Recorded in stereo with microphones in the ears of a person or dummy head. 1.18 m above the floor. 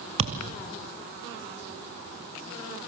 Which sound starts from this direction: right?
A thud, at 0.2 s.